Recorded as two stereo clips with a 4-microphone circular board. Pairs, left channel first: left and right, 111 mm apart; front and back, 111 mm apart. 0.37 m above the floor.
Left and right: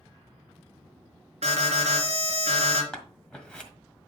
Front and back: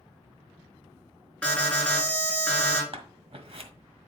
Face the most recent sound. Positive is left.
turn(degrees=170)